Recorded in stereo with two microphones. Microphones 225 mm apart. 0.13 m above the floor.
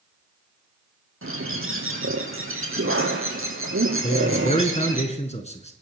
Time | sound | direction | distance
1.2 | a bird | 70° right (ahead or behind) | 3 m
4.0 | a man speaking | 30° left (ahead or behind) | 1.7 m